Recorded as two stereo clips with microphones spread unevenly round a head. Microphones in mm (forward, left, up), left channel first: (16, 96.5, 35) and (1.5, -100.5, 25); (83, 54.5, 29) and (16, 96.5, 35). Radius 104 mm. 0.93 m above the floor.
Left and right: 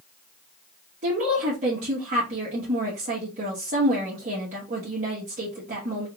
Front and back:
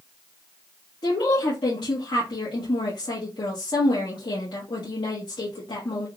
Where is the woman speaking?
50° right, 1.3 m.